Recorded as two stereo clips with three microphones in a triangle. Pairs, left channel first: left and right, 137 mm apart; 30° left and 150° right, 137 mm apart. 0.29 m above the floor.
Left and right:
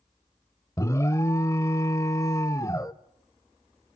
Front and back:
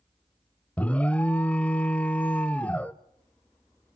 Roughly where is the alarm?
Left.